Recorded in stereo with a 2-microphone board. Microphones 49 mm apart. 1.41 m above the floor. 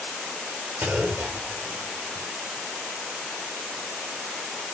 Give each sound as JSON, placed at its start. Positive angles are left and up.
{"t": 0.8, "sound": "a clunk", "side_deg": -25, "distance_m": 1.2}